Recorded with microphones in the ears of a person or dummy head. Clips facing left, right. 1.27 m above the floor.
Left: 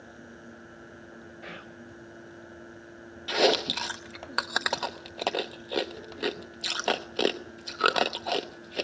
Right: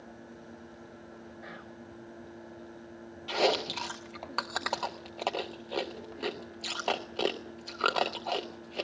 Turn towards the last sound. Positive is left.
turn(degrees=15)  # may be behind; listen again after turning